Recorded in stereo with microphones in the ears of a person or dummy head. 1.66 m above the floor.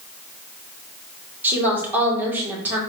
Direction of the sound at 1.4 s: 10° right (ahead or behind).